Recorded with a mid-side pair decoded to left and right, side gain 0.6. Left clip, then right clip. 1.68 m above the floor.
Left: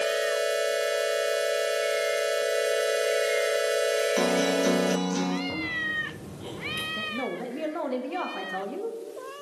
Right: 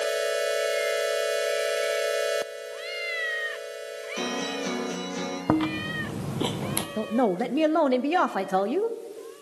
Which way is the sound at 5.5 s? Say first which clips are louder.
Right 2 dB; 70° right.